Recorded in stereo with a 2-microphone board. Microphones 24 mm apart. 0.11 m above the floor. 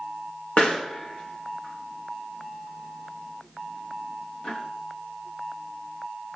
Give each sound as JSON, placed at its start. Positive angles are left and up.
{"t": 0.6, "sound": "a pop", "side_deg": 65, "distance_m": 4.5}